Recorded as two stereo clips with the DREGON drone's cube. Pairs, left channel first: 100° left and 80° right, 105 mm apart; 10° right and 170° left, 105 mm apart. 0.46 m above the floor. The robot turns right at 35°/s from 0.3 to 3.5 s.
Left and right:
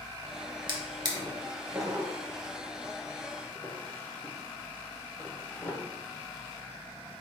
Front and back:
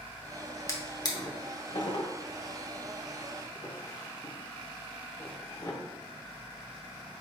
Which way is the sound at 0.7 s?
65° right.